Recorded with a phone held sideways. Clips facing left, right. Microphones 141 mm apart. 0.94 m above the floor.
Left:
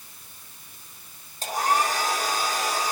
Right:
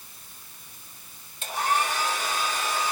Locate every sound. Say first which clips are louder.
1.4 s a hair dryer: left 2 dB; 35° left (ahead or behind), 8 m